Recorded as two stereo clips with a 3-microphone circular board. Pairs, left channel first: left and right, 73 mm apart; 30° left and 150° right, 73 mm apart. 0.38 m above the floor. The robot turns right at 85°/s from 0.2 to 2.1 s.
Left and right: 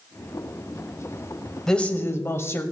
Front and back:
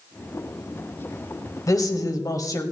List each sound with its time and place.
1.7 s a woman speaking: 5° left, 1.7 m; by 2.6 s 45° left, 1.7 m